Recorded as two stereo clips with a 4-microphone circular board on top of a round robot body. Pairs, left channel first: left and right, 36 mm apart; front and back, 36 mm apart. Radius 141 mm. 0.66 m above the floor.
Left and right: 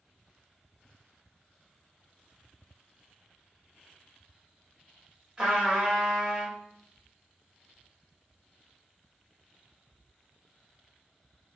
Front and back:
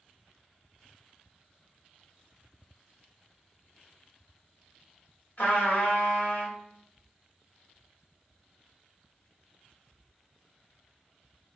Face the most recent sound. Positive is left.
turn(degrees=-25)